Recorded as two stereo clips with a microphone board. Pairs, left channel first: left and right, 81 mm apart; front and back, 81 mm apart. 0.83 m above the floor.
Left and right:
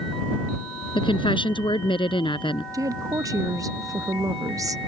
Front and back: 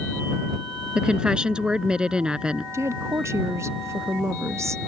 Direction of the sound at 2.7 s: 130° right.